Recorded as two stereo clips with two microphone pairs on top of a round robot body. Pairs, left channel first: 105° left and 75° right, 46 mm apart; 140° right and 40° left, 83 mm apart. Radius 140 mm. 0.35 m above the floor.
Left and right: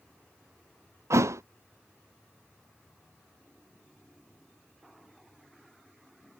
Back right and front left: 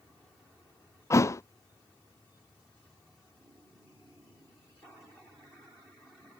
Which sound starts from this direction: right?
A thud, at 1.1 s.